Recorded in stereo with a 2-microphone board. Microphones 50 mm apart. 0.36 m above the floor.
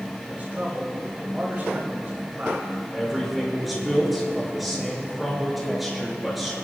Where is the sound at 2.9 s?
5° right (ahead or behind), 5 m.